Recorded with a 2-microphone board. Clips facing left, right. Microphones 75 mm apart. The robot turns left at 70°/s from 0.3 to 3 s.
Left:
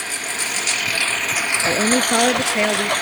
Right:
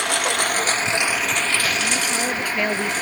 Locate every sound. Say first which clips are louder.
0.0 s a lawn mower: right 6 dB; 110° right; by 3.0 s 60° left
1.7 s a woman speaking: left 5 dB; 85° left; by 2.9 s 5° right